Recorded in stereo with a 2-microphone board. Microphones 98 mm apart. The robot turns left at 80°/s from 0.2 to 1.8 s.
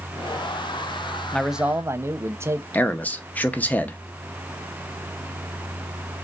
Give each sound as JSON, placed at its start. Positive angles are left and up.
{"t": 1.3, "sound": "a man speaking", "azimuth_deg": 10, "distance_m": 0.6}
{"t": 2.7, "sound": "a man speaking", "side_deg": 15, "distance_m": 0.7}